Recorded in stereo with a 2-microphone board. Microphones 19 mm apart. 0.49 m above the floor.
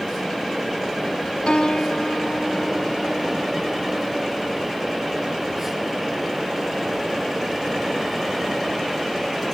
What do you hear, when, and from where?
1.5 s a piano: 65° left (ahead or behind), 1.6 m